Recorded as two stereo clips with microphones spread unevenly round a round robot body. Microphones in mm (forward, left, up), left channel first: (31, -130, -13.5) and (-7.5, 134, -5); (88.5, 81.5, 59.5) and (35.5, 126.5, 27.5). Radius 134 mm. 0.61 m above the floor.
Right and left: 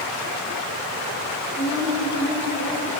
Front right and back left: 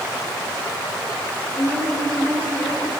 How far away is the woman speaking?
About 9 m.